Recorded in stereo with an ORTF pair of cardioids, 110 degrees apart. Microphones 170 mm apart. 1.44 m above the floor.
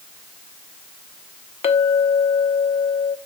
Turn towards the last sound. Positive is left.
turn(degrees=40)